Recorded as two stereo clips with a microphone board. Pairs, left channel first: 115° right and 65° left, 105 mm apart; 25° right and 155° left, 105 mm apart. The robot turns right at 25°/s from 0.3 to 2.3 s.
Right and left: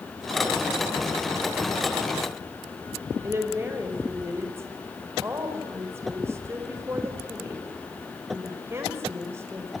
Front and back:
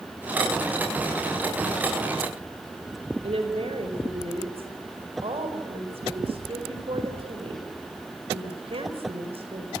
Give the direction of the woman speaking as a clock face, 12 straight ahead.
8 o'clock.